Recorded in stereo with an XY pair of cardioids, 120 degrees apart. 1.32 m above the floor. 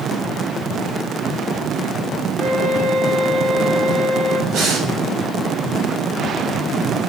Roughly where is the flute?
Ahead right.